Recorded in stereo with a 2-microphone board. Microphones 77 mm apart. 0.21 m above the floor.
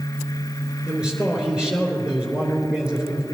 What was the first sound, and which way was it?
A man speaking, 10° right (ahead or behind).